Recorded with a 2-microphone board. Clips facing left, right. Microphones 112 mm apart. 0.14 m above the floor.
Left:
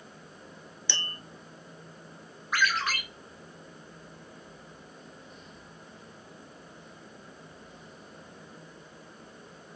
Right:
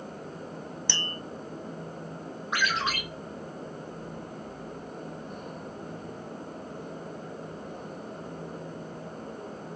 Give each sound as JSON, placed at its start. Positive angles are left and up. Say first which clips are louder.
{"t": 0.9, "sound": "tapping", "louder": "right 1 dB", "side_deg": -55, "distance_m": 1.0}
{"t": 2.5, "sound": "a ringtone", "louder": "even", "side_deg": -25, "distance_m": 1.8}